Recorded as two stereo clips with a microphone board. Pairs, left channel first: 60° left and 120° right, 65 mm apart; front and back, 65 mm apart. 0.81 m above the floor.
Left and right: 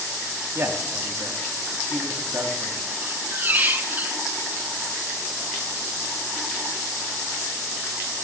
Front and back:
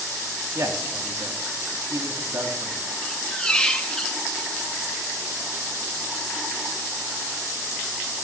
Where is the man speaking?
160° right, 1.8 m.